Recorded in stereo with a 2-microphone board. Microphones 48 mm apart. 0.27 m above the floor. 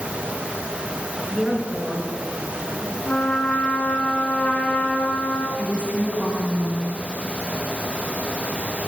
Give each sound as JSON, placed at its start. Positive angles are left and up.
{"t": 1.3, "sound": "a woman speaking", "side_deg": 5, "distance_m": 3.5}
{"t": 3.1, "sound": "a trumpet", "side_deg": 30, "distance_m": 1.4}
{"t": 5.6, "sound": "a woman speaking", "side_deg": -30, "distance_m": 2.0}